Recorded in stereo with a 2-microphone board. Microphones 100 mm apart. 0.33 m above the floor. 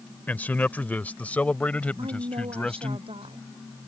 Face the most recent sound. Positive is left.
turn(degrees=-85)